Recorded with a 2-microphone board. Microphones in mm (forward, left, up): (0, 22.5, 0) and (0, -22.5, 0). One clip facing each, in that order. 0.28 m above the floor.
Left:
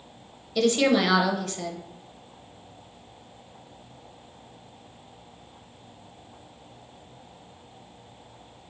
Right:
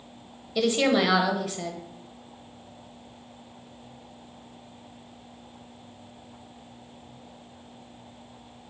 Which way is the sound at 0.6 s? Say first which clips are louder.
Left 1 dB; 10° right (ahead or behind).